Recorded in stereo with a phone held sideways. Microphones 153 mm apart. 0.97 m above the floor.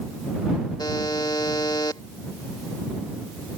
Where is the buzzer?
25° left (ahead or behind).